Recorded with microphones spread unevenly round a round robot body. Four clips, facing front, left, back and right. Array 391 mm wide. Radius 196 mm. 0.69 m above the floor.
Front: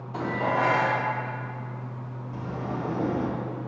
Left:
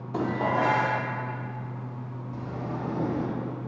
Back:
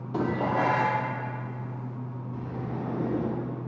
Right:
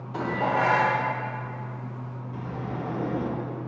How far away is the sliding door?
About 1.7 m.